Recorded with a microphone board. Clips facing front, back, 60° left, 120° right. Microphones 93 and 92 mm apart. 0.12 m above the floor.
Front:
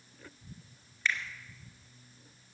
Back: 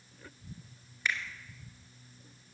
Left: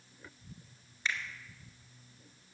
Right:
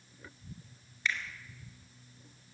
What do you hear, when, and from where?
1.1 s a finger snap: 110° left, 1.6 m